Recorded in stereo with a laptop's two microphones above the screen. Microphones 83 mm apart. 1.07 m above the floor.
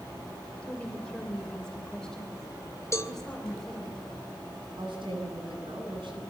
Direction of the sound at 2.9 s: 35° left (ahead or behind).